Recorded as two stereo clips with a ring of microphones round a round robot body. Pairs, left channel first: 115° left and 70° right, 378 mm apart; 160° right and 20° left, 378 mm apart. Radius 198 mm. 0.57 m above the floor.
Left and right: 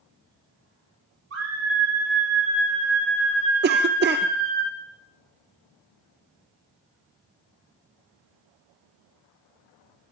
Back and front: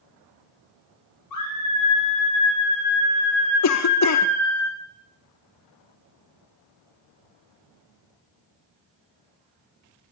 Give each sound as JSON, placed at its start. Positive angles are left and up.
{"t": 1.3, "sound": "a scream", "azimuth_deg": -120, "distance_m": 9.5}
{"t": 3.6, "sound": "a cough", "azimuth_deg": -125, "distance_m": 0.9}